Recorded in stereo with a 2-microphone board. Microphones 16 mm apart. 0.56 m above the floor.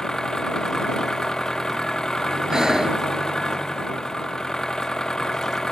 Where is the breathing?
60° right (ahead or behind).